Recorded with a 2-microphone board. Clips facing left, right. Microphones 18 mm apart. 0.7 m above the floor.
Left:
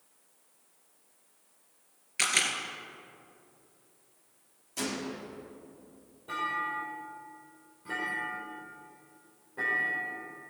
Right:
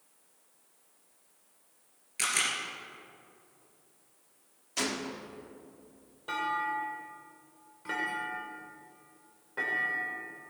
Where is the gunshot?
35° right (ahead or behind), 1.2 m.